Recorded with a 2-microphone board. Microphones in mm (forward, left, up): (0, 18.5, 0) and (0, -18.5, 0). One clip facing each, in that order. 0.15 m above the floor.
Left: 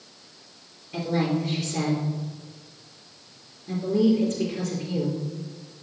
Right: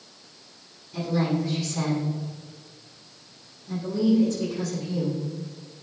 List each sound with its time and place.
0.9 s a woman speaking: 65° left (ahead or behind), 3 m